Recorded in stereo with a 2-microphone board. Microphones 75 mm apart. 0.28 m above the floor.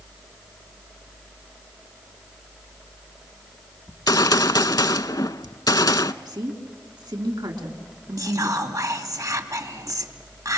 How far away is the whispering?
About 2.5 m.